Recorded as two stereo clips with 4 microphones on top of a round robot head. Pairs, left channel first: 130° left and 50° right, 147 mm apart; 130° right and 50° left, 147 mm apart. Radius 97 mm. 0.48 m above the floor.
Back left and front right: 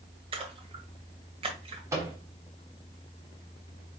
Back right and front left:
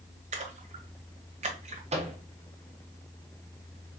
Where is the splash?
5° left, 1.0 m.